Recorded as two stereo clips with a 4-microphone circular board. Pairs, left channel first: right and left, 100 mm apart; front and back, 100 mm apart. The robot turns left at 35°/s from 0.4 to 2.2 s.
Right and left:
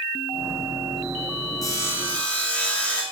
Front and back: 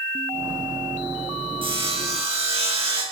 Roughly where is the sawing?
Behind right.